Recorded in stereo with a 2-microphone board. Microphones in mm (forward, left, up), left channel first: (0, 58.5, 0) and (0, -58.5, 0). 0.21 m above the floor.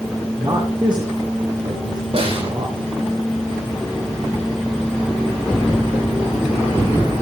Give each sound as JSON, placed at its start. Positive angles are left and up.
{"t": 0.4, "sound": "a man speaking", "side_deg": -40, "distance_m": 3.0}
{"t": 2.1, "sound": "a snare drum", "side_deg": -55, "distance_m": 8.0}